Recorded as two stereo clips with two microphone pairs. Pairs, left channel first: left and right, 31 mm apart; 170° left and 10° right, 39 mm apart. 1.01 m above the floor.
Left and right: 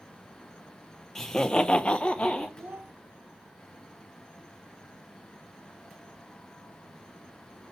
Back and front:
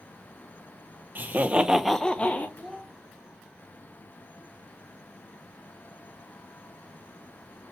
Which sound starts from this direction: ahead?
Laughter, at 1.1 s.